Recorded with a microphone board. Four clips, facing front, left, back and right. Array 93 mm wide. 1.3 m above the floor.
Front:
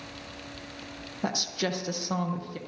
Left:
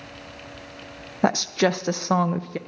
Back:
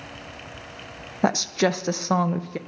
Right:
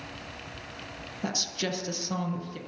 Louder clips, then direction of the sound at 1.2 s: Left 13 dB, back 9 dB; 125° left.